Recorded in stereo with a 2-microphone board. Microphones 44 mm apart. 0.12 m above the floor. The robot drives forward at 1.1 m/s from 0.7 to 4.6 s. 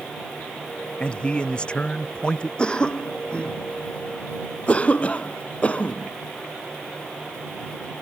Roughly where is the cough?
Centre.